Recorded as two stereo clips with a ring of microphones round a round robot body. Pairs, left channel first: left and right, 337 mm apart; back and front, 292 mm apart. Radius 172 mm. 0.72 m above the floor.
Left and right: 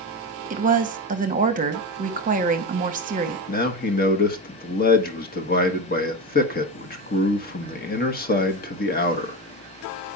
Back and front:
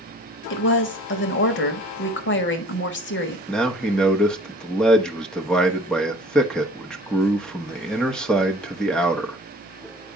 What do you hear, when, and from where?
0.5 s a woman speaking: 145° right, 1.2 m
3.5 s a man speaking: 95° left, 1.2 m